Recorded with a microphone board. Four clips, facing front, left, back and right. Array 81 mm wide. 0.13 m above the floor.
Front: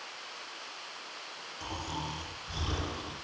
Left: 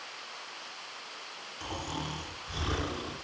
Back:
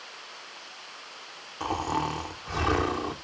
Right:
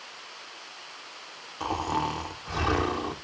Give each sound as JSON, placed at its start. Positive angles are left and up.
{"t": 1.6, "sound": "snoring", "azimuth_deg": -140, "distance_m": 2.5}